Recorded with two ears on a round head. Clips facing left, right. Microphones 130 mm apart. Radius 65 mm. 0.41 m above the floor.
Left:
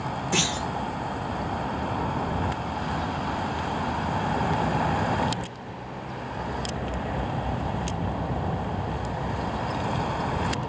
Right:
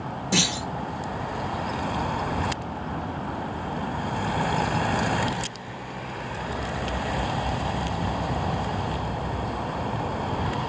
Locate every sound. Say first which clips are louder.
0.3 s a clunk: right 2 dB; 45° right (ahead or behind), 2.5 m